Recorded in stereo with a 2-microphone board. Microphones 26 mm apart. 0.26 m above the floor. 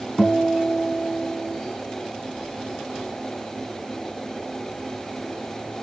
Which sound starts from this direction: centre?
A guitar, at 0.2 s.